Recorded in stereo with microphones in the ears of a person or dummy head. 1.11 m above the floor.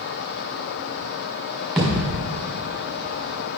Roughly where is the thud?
Centre.